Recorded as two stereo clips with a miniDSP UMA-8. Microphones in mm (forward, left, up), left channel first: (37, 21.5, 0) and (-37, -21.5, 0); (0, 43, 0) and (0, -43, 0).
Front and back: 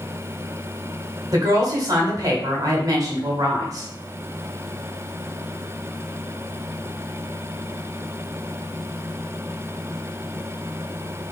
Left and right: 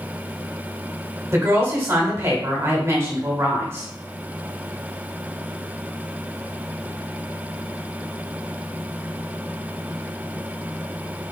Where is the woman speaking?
135° right, 1.8 m.